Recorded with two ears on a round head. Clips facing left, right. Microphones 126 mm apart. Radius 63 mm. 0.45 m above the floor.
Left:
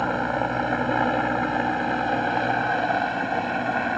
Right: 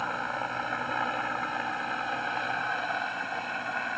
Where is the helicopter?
60° left (ahead or behind); by 4.0 s 55° left (ahead or behind).